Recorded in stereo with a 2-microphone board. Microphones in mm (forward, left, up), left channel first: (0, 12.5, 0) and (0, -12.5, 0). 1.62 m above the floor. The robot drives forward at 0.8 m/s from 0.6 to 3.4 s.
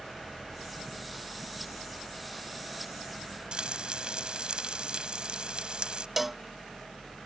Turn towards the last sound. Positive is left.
turn(degrees=-10)  # may be behind; listen again after turning